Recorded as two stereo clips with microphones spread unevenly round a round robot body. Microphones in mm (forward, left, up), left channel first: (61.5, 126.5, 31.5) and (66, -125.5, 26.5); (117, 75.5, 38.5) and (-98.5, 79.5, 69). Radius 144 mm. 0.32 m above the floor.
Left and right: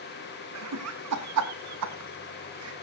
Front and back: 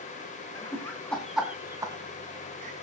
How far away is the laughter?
About 3 m.